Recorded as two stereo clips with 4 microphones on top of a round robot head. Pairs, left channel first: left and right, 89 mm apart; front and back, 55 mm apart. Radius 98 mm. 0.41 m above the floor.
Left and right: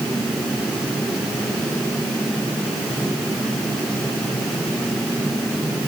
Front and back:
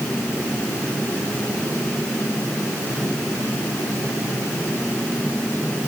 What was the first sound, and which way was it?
Only background noise.